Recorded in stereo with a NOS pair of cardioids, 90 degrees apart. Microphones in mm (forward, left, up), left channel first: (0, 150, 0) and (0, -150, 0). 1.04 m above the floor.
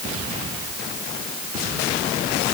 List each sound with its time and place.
Only background noise.